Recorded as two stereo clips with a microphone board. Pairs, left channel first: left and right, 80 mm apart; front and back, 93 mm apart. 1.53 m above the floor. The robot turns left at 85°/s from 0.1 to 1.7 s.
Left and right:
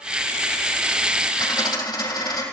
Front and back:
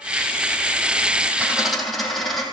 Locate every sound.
1.4 s a dropped coin: 115° left, 5.5 m; by 2.4 s 90° left, 5.5 m